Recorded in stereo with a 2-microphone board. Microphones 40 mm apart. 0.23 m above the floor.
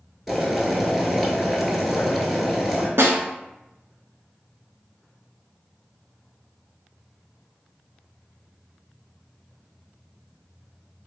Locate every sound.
0.3 s boiling: centre (ahead or behind), 0.8 m
3.0 s a snare drum: 85° right, 0.5 m